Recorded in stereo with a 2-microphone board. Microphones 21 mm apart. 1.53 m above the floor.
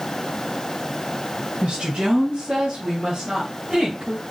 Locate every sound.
1.6 s a woman speaking: 60° right (ahead or behind), 1.7 m; by 4.2 s 35° right (ahead or behind), 3 m